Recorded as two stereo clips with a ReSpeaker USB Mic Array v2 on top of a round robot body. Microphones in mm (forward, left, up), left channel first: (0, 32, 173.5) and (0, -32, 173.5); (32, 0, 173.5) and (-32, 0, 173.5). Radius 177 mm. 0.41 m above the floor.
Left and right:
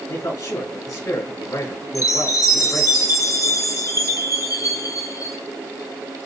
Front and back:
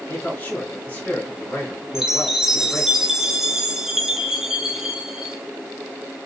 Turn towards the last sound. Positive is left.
turn(degrees=100)